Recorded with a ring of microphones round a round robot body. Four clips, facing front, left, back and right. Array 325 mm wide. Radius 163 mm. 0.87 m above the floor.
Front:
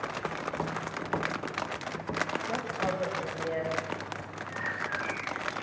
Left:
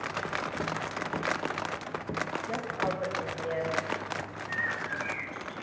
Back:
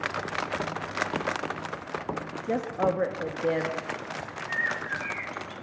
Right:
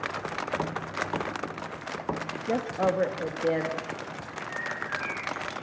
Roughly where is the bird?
Behind.